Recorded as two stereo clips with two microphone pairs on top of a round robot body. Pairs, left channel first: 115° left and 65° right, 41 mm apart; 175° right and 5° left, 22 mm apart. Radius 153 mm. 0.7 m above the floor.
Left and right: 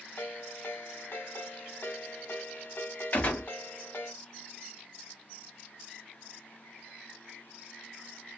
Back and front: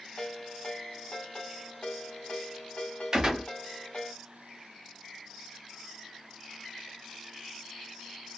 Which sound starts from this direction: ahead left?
A gunshot, at 3.1 s.